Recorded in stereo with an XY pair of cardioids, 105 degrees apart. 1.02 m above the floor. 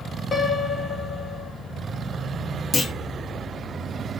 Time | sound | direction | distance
0.3 | a piano | 30° left | 0.8 m
2.7 | a clunk | 25° left | 0.9 m